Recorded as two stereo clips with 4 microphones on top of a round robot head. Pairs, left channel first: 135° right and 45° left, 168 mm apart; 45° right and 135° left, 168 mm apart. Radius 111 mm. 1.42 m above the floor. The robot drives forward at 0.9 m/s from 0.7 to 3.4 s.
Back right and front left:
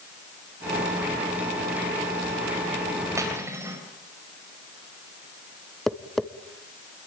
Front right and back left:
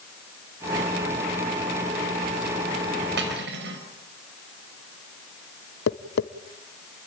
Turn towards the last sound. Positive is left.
turn(degrees=-45)